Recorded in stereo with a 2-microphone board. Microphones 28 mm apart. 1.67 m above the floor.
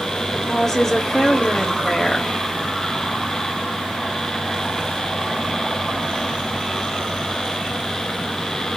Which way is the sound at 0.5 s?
15° left (ahead or behind).